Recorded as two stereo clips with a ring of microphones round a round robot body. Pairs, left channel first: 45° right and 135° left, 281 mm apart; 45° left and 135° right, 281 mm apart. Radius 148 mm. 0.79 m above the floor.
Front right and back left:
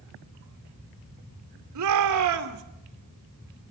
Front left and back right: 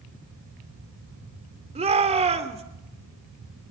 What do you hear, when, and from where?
1.8 s a shout: 155° left, 2.5 m